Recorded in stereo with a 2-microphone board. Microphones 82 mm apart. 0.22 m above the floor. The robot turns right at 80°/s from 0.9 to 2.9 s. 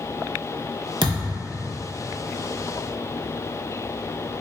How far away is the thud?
About 0.6 m.